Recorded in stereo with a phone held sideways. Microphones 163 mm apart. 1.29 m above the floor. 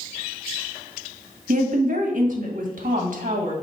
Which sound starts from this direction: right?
A woman speaking, at 1.5 s.